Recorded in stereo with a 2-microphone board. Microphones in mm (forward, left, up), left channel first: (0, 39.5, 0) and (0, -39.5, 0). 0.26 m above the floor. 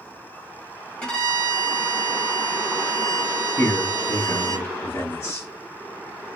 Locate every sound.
1.0 s a violin: 15° left (ahead or behind), 1.2 m
3.6 s a man speaking: 35° left (ahead or behind), 1.1 m